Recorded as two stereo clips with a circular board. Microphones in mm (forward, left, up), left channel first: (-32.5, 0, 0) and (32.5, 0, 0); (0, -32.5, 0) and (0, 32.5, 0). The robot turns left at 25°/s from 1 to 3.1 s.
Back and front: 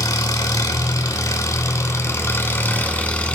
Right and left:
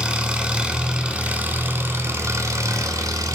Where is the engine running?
165° left, 0.8 m; by 3.4 s 110° left, 0.8 m.